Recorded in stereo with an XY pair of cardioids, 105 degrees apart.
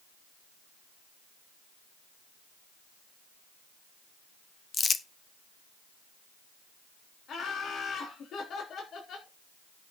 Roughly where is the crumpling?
Ahead left.